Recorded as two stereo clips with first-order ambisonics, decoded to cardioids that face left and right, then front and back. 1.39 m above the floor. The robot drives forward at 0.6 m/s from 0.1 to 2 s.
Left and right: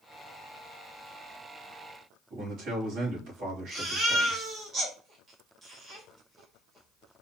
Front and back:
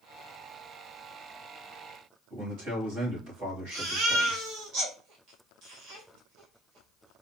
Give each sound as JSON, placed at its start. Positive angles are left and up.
{"t": 2.3, "sound": "a man speaking", "azimuth_deg": -140, "distance_m": 3.0}
{"t": 3.7, "sound": "a baby crying", "azimuth_deg": -150, "distance_m": 1.8}